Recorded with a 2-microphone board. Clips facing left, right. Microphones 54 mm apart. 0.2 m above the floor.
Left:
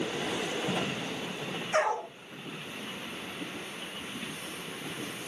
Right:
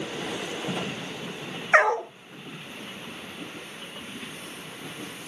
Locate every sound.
1.7 s a dog barking: 80° right, 0.6 m